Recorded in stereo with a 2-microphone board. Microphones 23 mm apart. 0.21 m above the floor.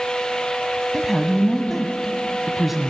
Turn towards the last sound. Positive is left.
turn(degrees=-10)  # may be behind; listen again after turning